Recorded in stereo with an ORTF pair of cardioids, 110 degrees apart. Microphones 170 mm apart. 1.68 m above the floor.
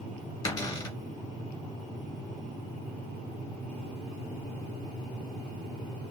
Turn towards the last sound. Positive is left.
turn(degrees=20)